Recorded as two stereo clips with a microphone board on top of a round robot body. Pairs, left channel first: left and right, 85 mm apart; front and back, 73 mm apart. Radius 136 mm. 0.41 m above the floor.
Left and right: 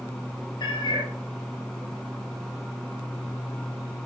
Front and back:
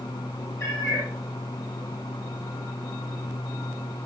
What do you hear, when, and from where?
0.6 s a cat meowing: 55° left, 7 m